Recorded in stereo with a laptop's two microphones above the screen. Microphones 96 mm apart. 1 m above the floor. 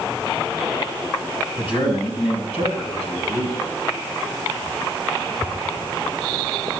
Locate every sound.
1.6 s a man speaking: 70° left (ahead or behind), 5 m; by 3.6 s 85° left, 5.5 m